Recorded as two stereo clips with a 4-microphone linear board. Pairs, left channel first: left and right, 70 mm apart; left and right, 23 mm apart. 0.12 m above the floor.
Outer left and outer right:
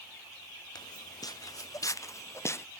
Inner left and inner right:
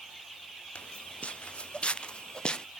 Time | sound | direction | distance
0.8 | footsteps | 75° left (ahead or behind) | ?